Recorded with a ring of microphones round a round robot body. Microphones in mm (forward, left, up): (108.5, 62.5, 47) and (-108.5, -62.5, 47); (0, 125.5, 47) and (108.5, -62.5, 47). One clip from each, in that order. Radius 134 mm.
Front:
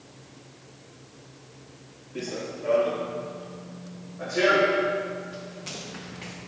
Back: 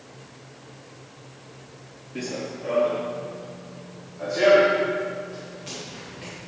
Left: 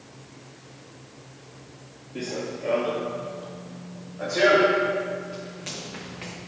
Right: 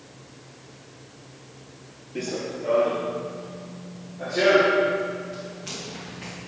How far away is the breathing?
No breathing in this recording.